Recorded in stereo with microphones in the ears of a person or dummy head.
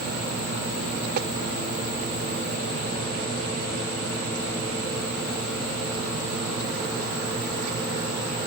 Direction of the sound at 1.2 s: 60° right (ahead or behind).